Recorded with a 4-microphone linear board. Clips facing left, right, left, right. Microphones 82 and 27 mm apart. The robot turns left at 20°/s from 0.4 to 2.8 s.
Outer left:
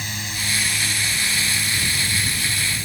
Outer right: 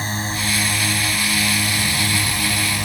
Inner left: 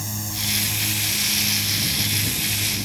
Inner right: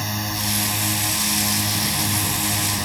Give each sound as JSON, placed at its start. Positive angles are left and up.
{"t": 0.0, "sound": "a drone", "side_deg": -40}